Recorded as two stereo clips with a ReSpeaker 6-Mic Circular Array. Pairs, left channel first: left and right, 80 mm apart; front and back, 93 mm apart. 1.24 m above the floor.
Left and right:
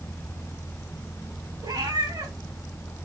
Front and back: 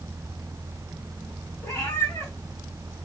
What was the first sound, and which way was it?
A cat meowing, 60° right.